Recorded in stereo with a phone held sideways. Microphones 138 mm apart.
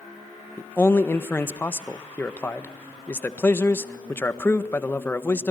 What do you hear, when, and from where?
0.6 s a man speaking: 15° left (ahead or behind), 1.3 m